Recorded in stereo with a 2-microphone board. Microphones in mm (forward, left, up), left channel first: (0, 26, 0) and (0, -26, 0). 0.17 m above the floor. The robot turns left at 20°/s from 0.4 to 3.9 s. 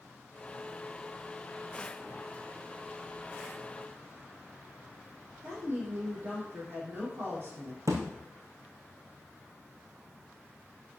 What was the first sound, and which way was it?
A woman speaking, 50° right (ahead or behind).